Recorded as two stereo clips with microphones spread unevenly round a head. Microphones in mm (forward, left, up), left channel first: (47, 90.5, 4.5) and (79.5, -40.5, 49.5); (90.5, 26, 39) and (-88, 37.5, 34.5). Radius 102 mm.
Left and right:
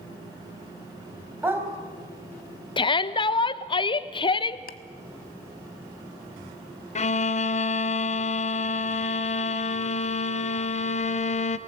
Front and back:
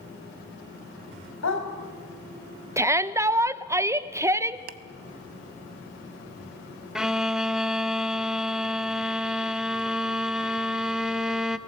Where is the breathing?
No breathing in this recording.